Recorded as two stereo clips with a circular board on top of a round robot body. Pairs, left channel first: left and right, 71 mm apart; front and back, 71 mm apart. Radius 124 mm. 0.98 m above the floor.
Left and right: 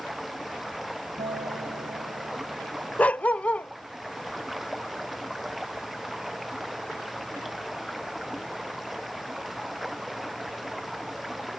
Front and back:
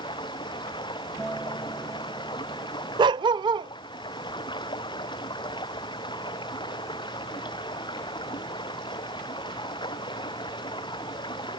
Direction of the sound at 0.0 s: Straight ahead.